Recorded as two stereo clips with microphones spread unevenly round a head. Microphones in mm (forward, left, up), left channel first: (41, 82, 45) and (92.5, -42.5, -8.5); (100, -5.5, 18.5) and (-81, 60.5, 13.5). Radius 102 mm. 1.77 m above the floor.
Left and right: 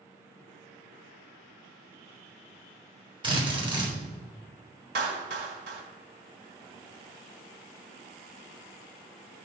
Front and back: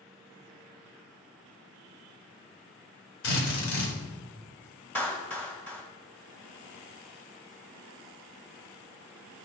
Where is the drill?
10° right, 3.5 m.